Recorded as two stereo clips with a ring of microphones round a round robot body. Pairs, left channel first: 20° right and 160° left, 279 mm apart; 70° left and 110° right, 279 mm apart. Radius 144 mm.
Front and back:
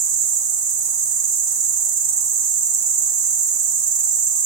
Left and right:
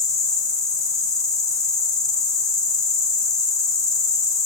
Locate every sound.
0.0 s an insect: 145° left, 0.8 m